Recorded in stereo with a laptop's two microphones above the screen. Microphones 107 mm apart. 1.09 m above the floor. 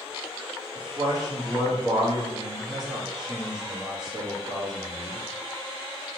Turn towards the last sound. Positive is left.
turn(degrees=-40)  # may be behind; listen again after turning